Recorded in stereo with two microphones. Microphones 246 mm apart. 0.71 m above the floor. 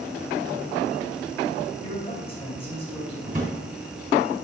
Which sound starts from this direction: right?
A drawer, at 3.3 s.